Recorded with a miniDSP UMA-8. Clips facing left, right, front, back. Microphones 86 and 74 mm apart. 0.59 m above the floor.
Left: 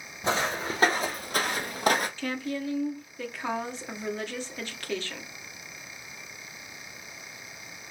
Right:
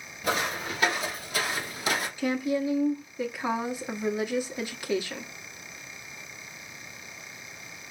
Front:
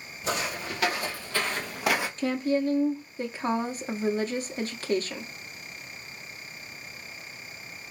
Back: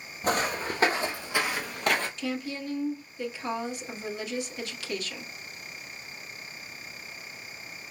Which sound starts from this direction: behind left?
Footsteps, at 0.2 s.